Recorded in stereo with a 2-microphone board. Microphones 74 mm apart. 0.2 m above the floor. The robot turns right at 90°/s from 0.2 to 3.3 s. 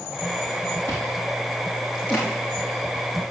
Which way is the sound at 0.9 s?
85° right.